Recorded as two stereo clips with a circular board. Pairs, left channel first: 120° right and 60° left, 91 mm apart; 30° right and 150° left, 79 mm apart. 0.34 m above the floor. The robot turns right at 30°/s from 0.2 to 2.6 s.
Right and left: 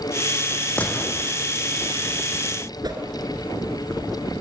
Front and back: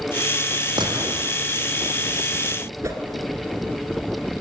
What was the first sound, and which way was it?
A gunshot, 165° left.